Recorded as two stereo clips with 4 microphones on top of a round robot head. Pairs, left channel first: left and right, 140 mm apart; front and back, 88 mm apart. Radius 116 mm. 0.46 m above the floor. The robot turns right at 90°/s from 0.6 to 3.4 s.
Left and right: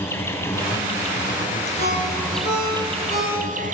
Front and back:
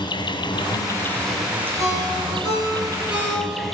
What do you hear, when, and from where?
0.0 s an insect: 20° left, 1.9 m; by 3.8 s 90° right, 1.9 m
1.8 s a ringtone: 20° right, 7 m; by 3.6 s 125° left, 7 m